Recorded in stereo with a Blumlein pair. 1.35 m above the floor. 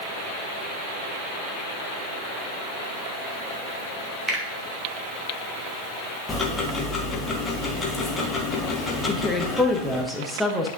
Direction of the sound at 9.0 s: 5° left.